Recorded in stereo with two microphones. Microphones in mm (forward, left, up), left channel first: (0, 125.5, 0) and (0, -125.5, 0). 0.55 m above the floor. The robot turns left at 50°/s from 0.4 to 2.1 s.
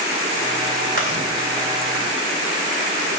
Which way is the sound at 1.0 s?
55° right (ahead or behind).